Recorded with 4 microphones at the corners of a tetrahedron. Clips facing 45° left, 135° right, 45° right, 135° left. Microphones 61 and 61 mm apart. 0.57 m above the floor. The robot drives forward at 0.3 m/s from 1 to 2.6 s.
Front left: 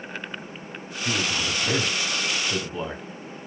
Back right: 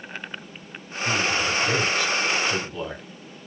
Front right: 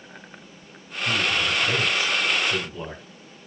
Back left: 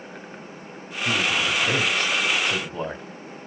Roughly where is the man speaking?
Left.